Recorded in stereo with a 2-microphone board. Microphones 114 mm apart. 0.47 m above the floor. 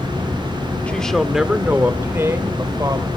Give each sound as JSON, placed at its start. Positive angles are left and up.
{"t": 0.9, "sound": "a woman speaking", "side_deg": 10, "distance_m": 1.1}